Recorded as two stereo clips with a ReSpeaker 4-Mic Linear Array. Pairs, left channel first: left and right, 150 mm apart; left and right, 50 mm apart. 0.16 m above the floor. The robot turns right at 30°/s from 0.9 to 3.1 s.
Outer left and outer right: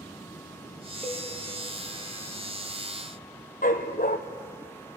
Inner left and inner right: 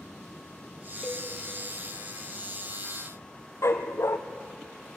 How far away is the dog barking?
About 1.4 m.